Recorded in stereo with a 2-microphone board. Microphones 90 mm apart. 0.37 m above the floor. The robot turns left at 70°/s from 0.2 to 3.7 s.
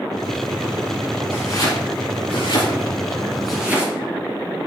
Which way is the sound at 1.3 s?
25° left (ahead or behind).